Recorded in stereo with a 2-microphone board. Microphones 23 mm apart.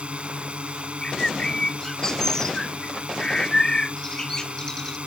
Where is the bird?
30° left (ahead or behind).